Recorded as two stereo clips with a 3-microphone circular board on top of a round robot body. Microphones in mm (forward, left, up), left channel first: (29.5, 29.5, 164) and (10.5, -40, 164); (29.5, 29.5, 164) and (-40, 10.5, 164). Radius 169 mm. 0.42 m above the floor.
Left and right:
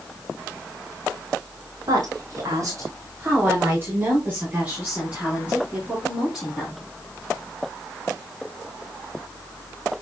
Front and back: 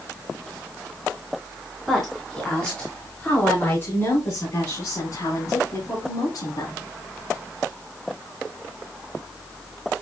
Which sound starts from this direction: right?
A woman speaking, at 1.9 s.